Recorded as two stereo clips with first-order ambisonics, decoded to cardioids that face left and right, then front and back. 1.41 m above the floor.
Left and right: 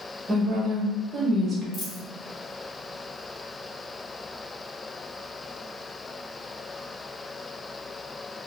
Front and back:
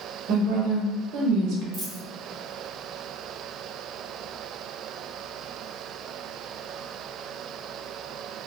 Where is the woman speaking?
150° right, 0.7 m.